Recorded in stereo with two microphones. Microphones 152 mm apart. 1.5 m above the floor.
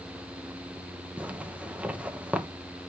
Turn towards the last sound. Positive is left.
turn(degrees=-10)  # may be behind; listen again after turning